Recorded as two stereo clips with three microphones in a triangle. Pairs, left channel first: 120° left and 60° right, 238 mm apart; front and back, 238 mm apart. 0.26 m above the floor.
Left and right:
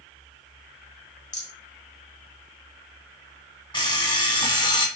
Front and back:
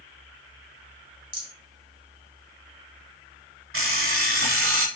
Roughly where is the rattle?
Behind left.